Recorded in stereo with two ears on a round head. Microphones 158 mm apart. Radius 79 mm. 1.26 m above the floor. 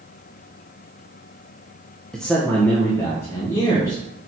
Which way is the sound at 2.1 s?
5° left (ahead or behind).